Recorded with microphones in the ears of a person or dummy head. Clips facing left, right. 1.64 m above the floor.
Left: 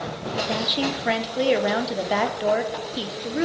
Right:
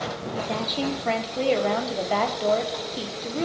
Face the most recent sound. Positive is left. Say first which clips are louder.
# left 1 dB
turn(degrees=10)  # may be behind; listen again after turning